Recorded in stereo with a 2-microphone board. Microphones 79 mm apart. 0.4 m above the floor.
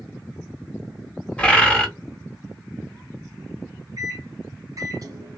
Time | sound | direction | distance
1.4 | a bird | 15° left (ahead or behind) | 1.2 m
4.0 | a microwave | 50° right (ahead or behind) | 1.2 m